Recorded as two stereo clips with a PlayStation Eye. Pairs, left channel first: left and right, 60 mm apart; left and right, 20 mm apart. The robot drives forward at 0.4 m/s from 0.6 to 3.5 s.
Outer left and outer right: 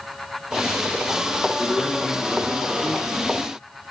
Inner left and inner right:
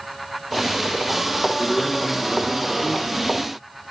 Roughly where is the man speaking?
Centre.